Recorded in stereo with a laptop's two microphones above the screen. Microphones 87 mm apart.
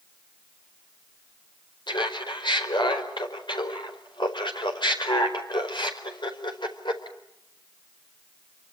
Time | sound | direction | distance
1.9 | laughter | 60° left (ahead or behind) | 4.5 m